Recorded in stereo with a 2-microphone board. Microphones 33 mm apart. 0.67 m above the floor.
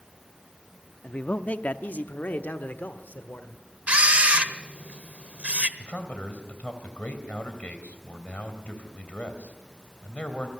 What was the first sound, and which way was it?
A man speaking, 35° left (ahead or behind).